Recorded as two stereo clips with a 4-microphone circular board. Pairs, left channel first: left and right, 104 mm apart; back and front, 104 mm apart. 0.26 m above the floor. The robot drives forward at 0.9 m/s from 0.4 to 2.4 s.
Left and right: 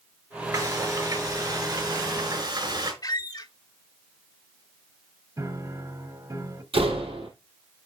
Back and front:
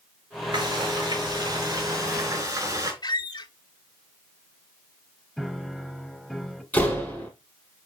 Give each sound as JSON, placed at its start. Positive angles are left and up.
{"t": 0.5, "sound": "frying", "azimuth_deg": -35, "distance_m": 5.0}
{"t": 3.0, "sound": "a squeak", "azimuth_deg": 135, "distance_m": 0.6}
{"t": 5.4, "sound": "a piano", "azimuth_deg": -95, "distance_m": 1.0}
{"t": 6.7, "sound": "a door slam", "azimuth_deg": -105, "distance_m": 5.0}